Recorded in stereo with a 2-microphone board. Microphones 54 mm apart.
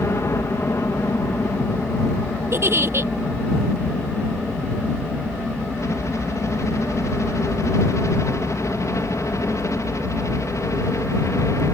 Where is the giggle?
45° right (ahead or behind).